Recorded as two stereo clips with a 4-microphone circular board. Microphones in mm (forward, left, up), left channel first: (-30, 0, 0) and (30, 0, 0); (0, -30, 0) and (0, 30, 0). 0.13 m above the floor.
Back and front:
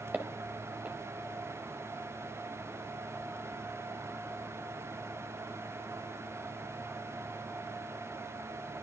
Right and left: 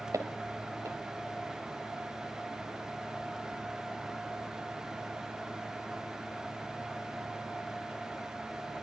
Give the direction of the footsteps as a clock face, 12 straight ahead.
10 o'clock.